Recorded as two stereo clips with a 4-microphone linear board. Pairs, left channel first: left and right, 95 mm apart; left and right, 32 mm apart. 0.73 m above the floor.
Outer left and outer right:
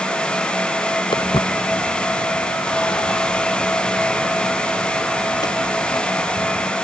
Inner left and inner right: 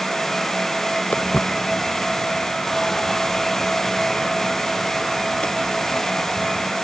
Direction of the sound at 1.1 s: 55° left (ahead or behind).